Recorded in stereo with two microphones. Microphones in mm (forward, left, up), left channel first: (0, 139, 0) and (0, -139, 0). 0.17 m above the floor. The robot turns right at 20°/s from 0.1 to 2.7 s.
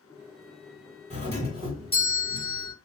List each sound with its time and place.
1.1 s a doorbell: 20° right (ahead or behind), 1.5 m